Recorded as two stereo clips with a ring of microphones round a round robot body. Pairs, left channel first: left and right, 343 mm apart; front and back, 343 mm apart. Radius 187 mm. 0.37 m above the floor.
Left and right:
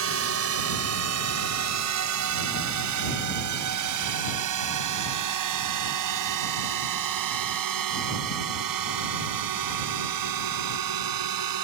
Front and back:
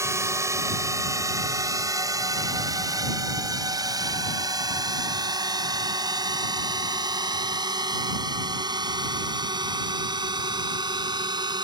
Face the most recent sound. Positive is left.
turn(degrees=-105)